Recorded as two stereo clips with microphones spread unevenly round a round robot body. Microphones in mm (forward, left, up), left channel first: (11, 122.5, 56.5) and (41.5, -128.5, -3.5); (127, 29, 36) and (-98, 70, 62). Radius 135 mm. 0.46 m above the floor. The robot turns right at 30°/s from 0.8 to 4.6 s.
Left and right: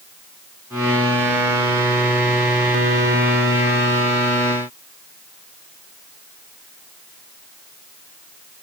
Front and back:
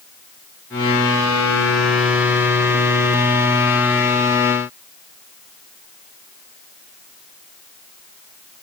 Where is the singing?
I don't hear singing.